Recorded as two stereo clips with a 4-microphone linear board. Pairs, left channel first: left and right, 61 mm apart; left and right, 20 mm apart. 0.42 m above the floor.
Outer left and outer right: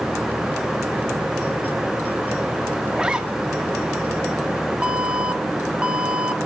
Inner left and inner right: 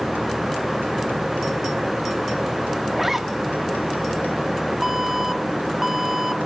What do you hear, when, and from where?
2.9 s a zipper: 20° right (ahead or behind), 2 m
4.8 s an alarm: 15° right (ahead or behind), 1.3 m